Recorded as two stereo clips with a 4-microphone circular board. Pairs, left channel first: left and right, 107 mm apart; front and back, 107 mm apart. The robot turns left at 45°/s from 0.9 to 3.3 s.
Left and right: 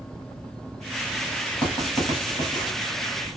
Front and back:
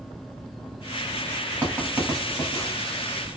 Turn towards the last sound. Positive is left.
turn(degrees=35)